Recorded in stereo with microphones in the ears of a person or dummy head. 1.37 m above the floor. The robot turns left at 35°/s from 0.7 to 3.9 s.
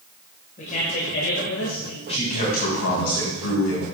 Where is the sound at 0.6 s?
140° left, 1.6 m; by 2.0 s 95° left, 1.6 m.